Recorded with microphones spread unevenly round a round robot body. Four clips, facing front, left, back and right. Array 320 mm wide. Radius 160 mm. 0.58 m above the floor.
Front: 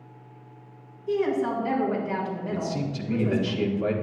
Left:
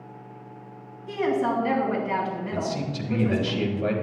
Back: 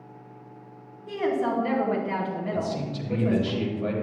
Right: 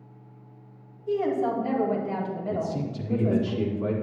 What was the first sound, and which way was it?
A woman speaking, 115° right.